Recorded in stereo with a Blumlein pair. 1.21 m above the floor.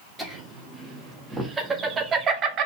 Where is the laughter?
5° right, 2 m; by 2.7 s 35° right, 0.9 m.